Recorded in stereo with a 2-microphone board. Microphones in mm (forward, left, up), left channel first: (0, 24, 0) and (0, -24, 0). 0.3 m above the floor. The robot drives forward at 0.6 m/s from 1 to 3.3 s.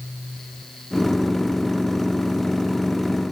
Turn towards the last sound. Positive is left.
No sound to turn to.